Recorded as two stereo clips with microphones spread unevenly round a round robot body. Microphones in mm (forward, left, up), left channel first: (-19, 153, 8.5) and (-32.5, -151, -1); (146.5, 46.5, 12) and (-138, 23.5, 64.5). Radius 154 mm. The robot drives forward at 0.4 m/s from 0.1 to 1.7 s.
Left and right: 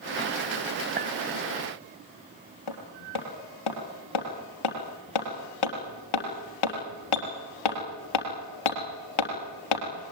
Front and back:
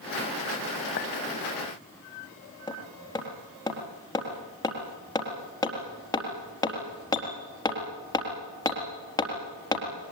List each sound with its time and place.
1.0 s a clink: 35° right, 1.4 m
2.7 s hammering: 85° left, 4 m